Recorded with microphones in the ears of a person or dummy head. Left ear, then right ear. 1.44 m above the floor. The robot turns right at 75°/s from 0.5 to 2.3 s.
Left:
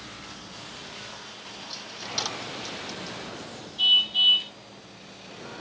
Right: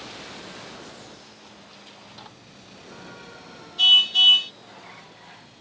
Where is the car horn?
40° right (ahead or behind).